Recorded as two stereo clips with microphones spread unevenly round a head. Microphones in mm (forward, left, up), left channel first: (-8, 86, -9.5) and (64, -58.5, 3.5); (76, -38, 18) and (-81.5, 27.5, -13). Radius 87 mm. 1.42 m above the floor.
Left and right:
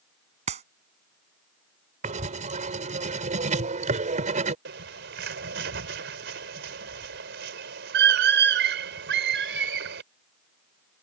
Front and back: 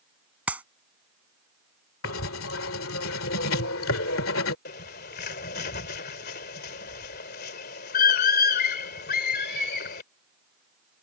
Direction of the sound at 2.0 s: 20° right.